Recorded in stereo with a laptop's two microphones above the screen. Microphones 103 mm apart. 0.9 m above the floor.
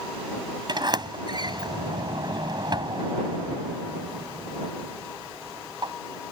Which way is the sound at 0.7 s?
45° right (ahead or behind).